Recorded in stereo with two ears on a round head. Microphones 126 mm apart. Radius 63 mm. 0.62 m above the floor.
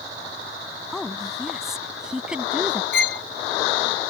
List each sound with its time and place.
0.9 s a woman speaking: centre (ahead or behind); by 2.8 s 10° right (ahead or behind)
2.9 s a violin: 70° left (ahead or behind)